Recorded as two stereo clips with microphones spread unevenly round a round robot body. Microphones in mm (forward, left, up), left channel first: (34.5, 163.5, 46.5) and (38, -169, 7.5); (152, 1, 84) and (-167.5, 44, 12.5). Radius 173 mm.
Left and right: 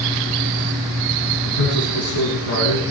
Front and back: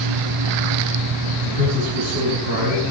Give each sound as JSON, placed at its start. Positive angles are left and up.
{"t": 1.4, "sound": "a man speaking", "azimuth_deg": 50, "distance_m": 5.0}